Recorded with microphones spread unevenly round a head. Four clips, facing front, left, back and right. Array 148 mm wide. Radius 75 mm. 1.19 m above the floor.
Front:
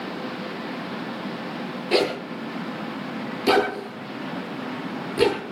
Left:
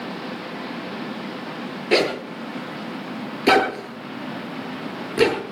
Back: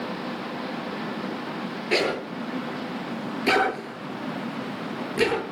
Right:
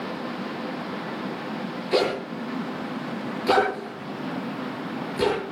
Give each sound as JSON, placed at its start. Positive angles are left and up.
{"t": 1.9, "sound": "a zipper", "azimuth_deg": 85, "distance_m": 8.0}